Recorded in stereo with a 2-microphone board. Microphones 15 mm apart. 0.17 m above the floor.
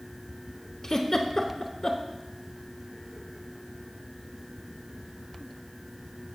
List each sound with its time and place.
0.8 s a giggle: 35° left (ahead or behind), 0.7 m